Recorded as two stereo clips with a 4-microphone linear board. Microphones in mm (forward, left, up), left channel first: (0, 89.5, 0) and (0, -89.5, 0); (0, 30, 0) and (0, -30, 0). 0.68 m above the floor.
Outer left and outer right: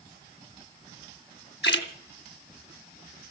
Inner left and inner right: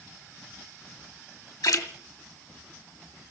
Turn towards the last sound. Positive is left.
turn(degrees=85)